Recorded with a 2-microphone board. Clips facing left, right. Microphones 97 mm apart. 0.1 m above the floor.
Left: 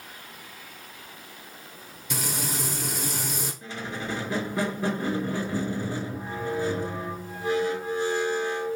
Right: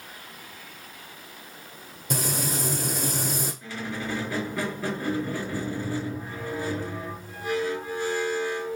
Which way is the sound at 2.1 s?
45° right (ahead or behind).